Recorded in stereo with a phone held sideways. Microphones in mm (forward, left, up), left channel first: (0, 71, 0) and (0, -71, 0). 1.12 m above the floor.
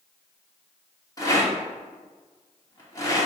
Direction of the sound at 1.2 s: 25° left (ahead or behind).